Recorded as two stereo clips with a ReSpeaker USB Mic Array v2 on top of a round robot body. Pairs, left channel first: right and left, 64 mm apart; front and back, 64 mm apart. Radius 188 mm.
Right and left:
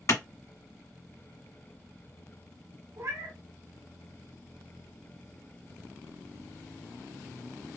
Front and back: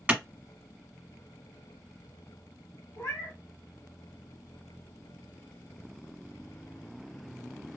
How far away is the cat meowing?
About 1.0 m.